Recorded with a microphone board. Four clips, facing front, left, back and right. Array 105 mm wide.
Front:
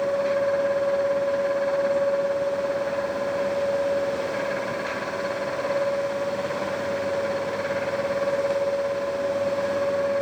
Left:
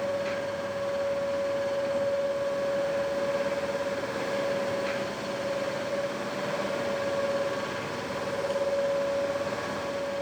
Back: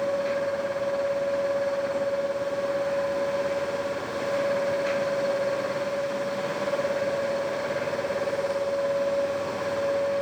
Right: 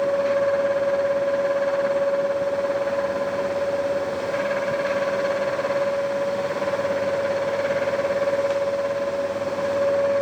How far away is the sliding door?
No sliding door in this recording.